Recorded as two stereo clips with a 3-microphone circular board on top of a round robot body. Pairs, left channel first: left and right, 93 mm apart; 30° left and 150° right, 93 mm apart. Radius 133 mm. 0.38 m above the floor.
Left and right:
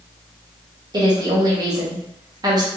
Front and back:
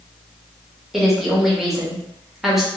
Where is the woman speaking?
65° right, 1.5 m.